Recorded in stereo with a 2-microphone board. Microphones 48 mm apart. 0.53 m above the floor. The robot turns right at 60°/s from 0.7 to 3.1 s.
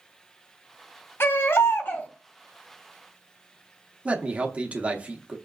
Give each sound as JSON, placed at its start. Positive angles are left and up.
{"t": 1.2, "sound": "a baby crying", "azimuth_deg": 85, "distance_m": 0.8}
{"t": 4.0, "sound": "a man speaking", "side_deg": -30, "distance_m": 0.7}